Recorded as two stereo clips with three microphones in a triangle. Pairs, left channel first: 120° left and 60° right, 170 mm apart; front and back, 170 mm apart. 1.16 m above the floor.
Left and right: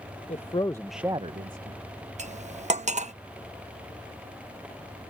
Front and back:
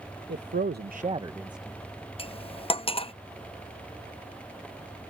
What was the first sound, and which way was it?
A man speaking, 170° left.